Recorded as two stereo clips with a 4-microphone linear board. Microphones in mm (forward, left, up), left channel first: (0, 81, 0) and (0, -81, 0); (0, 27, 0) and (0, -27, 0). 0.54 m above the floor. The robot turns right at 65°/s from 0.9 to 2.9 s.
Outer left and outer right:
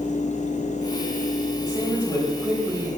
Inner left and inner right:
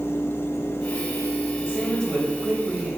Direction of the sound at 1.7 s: 130° left.